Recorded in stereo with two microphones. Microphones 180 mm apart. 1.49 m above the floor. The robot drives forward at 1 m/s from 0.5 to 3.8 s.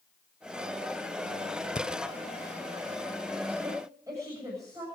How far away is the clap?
No clap in this recording.